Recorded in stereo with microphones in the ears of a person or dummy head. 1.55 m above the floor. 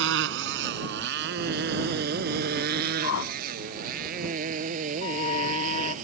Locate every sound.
0.0 s a motorcycle: 75° right (ahead or behind); by 6.0 s 45° right (ahead or behind)
3.0 s a whoosh: 70° left (ahead or behind)
5.0 s a flute: 35° left (ahead or behind)